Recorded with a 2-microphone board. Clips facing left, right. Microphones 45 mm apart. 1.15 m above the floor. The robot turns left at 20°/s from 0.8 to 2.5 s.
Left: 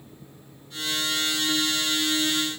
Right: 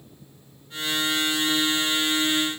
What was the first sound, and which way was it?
Only background noise.